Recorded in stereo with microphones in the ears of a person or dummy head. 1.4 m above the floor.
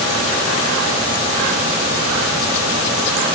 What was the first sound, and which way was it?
Only background noise.